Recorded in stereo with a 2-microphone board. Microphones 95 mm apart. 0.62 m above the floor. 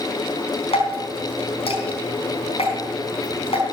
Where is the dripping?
85° left, 4.5 m.